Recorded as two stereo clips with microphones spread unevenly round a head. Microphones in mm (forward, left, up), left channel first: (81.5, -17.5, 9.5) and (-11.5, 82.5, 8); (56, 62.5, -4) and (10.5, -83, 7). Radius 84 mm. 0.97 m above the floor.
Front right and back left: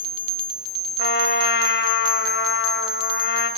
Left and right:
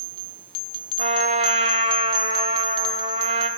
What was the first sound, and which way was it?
A trumpet, 60° right.